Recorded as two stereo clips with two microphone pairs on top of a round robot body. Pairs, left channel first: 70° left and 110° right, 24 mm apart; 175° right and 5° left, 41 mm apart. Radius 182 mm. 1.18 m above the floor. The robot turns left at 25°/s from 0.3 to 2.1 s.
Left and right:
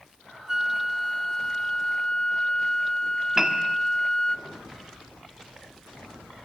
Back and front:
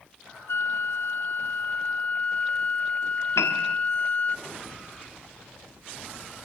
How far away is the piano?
About 1.1 m.